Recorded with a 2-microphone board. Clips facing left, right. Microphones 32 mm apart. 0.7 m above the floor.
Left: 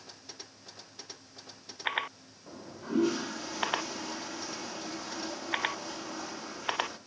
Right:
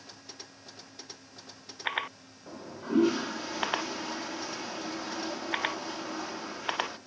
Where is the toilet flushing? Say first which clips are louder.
Right 3 dB; 15° right (ahead or behind), 0.9 m.